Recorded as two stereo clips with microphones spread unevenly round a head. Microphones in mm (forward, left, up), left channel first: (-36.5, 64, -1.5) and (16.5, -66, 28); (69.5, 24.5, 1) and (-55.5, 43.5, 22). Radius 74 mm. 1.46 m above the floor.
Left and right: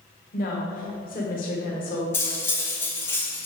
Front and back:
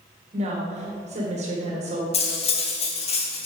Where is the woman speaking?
135° left, 1.5 m.